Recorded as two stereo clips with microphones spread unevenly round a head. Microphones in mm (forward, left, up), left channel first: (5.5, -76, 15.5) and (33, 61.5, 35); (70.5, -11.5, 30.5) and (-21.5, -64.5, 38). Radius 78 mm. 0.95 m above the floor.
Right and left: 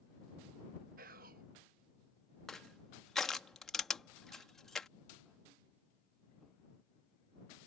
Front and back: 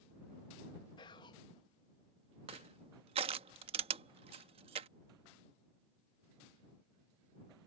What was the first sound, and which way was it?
Whispering, 70° left.